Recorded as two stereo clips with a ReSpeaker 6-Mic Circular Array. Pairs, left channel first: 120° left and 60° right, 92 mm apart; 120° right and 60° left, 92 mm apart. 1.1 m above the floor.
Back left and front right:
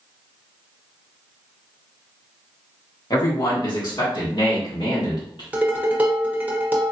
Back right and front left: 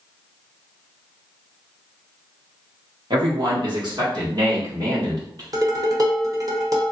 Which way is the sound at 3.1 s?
80° left.